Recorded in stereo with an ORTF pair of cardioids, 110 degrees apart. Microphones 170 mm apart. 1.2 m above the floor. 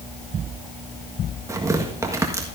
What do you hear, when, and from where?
1.5 s tearing paper: 20° right, 1.6 m